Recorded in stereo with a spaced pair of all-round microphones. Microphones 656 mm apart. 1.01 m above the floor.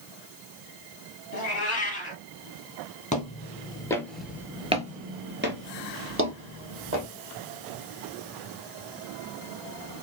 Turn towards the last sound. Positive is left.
turn(degrees=-20)  # may be behind; listen again after turning